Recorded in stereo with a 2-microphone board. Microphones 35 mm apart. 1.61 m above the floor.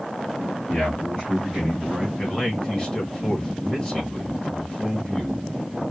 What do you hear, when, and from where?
0.7 s a man speaking: 20° left (ahead or behind), 3 m; by 2.1 s 5° right (ahead or behind), 2.5 m
2.2 s a man speaking: 20° left (ahead or behind), 2.5 m